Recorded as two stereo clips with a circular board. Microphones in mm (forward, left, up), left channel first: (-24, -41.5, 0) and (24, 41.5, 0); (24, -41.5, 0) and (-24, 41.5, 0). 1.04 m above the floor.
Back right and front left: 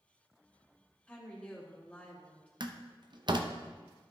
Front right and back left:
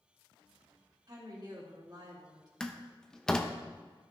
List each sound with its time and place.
1.1 s a woman speaking: 165° left, 2 m
2.6 s a door slam: 25° left, 0.7 m